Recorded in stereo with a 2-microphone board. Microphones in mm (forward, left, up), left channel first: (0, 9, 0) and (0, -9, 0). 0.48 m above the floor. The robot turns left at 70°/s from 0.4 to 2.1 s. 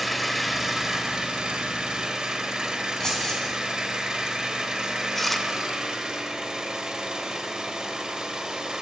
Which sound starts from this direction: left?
Keys jangling, at 3.0 s.